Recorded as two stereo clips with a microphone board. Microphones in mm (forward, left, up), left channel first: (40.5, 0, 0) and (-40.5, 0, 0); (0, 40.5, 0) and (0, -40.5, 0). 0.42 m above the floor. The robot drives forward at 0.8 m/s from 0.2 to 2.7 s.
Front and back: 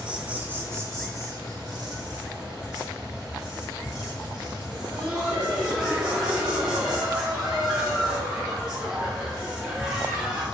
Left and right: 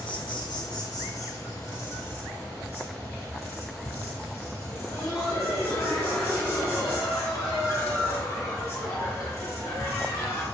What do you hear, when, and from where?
0.0 s an insect: 105° left, 1.0 m; by 10.5 s 155° left, 2.5 m
4.7 s laughter: 110° left, 1.9 m